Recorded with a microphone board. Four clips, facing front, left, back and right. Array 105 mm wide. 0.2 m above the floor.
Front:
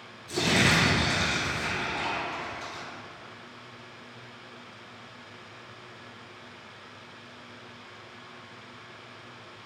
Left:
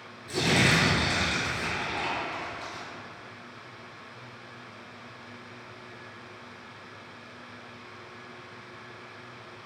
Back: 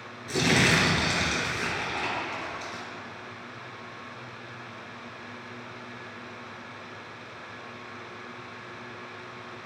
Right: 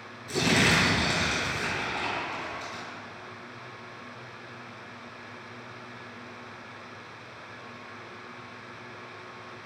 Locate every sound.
0.3 s crumpling: 170° right, 2 m